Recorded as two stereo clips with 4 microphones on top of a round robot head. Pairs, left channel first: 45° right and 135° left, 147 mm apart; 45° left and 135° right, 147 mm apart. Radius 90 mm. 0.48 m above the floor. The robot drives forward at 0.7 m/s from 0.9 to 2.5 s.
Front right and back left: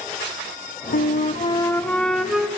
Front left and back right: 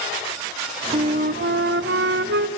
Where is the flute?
75° right, 0.7 m; by 2.5 s 145° right, 1.2 m.